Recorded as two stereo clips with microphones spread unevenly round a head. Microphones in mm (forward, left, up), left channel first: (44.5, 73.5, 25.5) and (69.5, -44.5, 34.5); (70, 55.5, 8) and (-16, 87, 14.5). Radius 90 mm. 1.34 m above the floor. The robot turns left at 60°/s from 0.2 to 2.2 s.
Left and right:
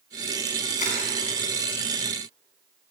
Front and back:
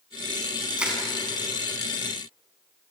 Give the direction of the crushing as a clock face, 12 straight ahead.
9 o'clock.